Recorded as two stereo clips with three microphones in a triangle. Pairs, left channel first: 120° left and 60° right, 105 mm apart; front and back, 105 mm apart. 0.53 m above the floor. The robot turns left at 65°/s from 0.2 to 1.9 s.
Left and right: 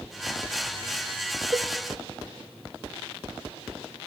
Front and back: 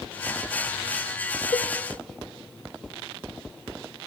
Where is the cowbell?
15° right, 0.6 m; by 1.7 s 25° right, 0.6 m.